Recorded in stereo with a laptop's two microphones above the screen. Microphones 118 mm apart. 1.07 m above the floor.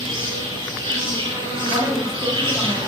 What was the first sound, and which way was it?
An insect, 40° right (ahead or behind).